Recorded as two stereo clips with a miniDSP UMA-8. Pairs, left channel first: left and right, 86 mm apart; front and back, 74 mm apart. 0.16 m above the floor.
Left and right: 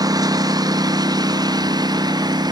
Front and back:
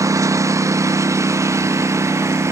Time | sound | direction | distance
0.0 | a lawn mower | 135° right | ?